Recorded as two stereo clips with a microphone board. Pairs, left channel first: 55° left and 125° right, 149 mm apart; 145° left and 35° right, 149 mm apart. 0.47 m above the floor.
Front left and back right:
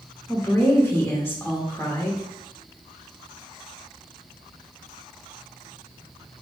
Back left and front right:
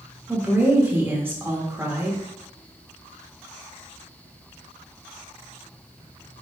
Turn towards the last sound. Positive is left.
turn(degrees=15)